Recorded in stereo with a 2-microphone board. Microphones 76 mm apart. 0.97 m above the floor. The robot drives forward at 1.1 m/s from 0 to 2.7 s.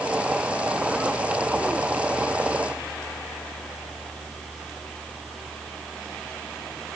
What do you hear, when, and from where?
Only background noise.